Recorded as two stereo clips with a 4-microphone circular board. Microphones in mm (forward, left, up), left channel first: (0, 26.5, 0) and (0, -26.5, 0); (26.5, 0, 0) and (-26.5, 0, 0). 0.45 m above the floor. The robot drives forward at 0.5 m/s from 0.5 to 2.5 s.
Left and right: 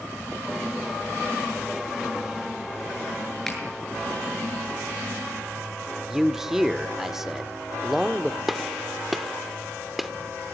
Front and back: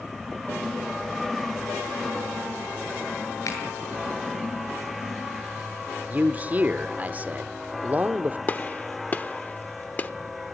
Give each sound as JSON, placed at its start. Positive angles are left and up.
{"t": 3.5, "sound": "a finger snap", "azimuth_deg": 5, "distance_m": 7.5}
{"t": 6.1, "sound": "a man speaking", "azimuth_deg": -170, "distance_m": 0.9}
{"t": 8.5, "sound": "a gunshot", "azimuth_deg": -5, "distance_m": 1.0}